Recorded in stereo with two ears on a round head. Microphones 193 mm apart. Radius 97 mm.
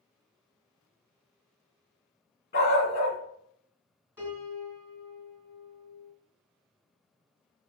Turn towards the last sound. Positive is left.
turn(degrees=-10)  # may be behind; listen again after turning